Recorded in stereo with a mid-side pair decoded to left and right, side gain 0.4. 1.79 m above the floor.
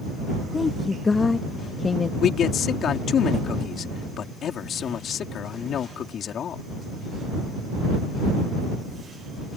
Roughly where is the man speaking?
Ahead left.